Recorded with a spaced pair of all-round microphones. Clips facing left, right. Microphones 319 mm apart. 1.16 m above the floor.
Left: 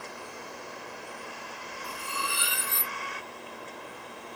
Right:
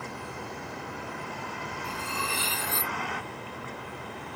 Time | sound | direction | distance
0.0 | a vehicle | 65° right (ahead or behind) | ?
1.8 | cutlery clinking | 15° left (ahead or behind) | ?